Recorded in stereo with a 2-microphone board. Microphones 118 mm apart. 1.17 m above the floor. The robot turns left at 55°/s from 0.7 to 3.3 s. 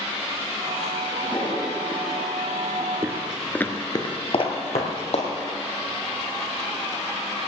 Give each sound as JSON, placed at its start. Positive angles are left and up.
{"t": 1.1, "sound": "a toilet flushing", "azimuth_deg": 60, "distance_m": 4.5}
{"t": 3.0, "sound": "footsteps", "side_deg": -25, "distance_m": 1.2}